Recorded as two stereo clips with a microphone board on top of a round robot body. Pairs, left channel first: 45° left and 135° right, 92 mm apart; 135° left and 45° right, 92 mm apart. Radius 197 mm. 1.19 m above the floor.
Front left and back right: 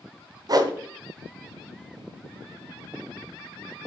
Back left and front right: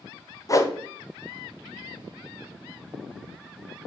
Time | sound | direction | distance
0.5 | a whoosh | 175° right | 1.0 m